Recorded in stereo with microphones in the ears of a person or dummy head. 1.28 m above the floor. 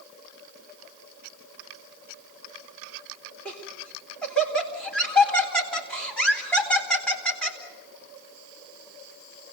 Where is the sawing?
I don't hear sawing.